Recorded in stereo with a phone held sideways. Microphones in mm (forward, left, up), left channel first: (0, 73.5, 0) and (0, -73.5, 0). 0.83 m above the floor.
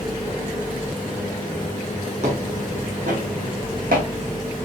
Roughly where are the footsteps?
Right.